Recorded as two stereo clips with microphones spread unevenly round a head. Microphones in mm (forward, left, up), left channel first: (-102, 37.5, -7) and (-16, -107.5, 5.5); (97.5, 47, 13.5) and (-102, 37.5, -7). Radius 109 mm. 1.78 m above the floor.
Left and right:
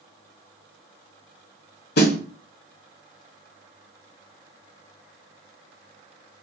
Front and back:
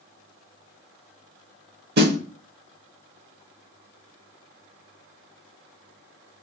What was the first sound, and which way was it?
A snare drum, 145° left.